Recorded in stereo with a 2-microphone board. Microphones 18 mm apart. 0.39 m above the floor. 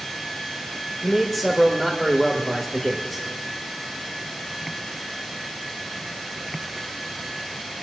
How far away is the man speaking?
About 1.1 m.